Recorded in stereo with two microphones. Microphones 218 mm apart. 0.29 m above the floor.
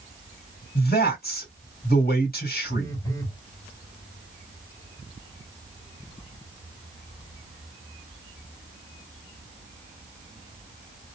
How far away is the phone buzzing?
About 1.6 m.